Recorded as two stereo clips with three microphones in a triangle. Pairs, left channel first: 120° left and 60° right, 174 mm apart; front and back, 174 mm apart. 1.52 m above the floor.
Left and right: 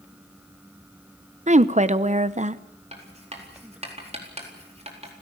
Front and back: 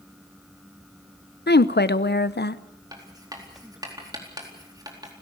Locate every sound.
1.5 s a woman speaking: 10° right, 0.9 m
2.9 s writing: 110° right, 4 m